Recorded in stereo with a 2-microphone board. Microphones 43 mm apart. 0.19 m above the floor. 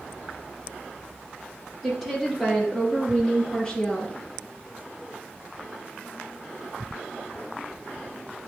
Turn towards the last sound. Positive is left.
turn(degrees=20)  # may be behind; listen again after turning